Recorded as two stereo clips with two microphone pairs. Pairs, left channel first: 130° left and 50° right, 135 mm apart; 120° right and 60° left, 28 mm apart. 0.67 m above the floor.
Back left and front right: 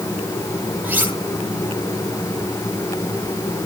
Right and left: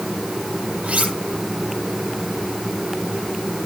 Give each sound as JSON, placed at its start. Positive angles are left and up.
{"t": 0.8, "sound": "cutlery clinking", "azimuth_deg": 25, "distance_m": 9.5}